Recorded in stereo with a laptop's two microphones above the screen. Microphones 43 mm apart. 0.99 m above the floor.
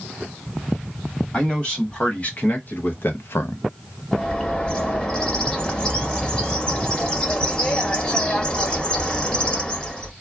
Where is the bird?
20° left (ahead or behind), 0.8 m.